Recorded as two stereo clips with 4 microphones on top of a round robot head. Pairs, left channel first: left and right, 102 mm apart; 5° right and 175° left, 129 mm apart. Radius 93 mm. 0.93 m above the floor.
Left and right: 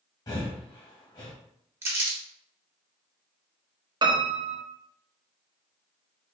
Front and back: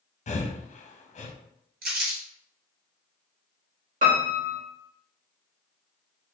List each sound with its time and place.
0.3 s breathing: 30° left, 0.7 m
1.8 s crumpling: 155° right, 1.4 m
4.0 s a piano: 140° right, 1.0 m